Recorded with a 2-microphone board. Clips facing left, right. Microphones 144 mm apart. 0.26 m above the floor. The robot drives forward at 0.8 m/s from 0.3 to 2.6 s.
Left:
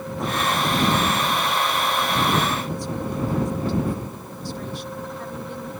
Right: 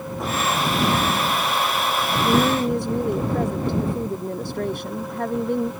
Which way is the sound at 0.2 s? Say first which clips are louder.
Even; centre (ahead or behind).